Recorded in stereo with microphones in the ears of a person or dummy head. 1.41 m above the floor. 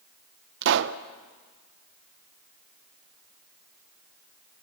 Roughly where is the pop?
Right.